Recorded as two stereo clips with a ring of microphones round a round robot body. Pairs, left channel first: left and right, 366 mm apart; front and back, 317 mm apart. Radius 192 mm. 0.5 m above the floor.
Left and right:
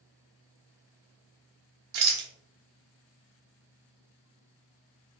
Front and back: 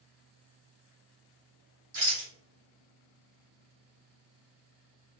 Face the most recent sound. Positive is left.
turn(degrees=-120)